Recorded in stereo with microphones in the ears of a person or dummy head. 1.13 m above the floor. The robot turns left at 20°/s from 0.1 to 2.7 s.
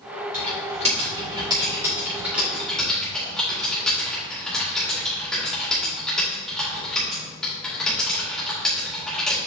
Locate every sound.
0.3 s typing on a keyboard: 50° right (ahead or behind), 2.5 m; by 9.4 s centre (ahead or behind), 2.5 m